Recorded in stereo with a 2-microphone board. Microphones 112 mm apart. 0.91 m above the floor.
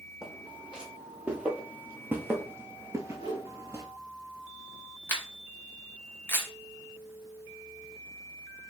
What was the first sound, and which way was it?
Footsteps, 5° right (ahead or behind).